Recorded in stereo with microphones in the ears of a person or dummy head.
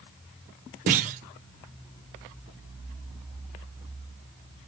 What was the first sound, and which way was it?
A clunk, 45° right (ahead or behind).